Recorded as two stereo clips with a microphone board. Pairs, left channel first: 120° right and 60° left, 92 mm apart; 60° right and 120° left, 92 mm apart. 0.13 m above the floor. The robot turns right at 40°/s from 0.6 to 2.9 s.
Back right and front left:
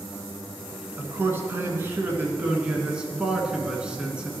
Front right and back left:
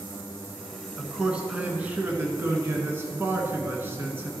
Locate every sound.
1.0 s a man speaking: 45° left, 1.1 m; by 4.3 s 120° left, 1.1 m